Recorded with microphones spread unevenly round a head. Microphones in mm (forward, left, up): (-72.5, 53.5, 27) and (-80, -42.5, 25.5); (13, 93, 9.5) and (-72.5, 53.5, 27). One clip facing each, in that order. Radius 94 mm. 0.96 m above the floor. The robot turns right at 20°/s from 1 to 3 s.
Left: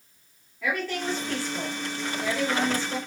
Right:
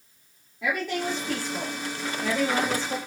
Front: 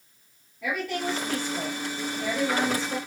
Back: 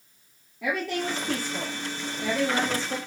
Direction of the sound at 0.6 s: 170° right.